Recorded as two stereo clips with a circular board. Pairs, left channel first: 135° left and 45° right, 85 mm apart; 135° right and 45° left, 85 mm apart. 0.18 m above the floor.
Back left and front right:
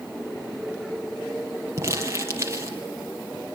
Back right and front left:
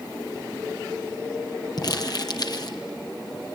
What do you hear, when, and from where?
1.8 s crumpling: 100° right, 3 m